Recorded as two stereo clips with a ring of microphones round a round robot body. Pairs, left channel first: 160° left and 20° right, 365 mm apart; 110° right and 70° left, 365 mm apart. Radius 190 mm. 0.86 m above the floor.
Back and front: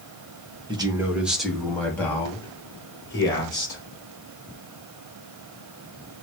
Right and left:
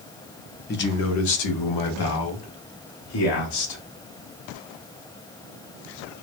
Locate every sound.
0.7 s a man speaking: 85° right, 0.8 m; by 3.8 s 125° right, 3 m